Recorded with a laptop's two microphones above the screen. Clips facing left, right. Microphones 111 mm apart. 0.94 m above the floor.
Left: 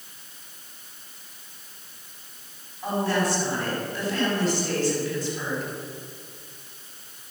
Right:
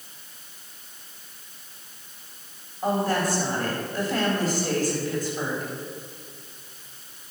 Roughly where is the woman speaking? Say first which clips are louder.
Right 1 dB; right.